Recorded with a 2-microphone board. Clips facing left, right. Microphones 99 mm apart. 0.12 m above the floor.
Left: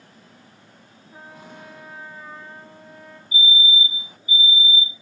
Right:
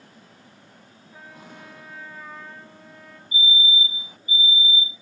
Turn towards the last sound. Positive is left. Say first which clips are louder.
# left 2 dB
turn(degrees=15)  # may be behind; listen again after turning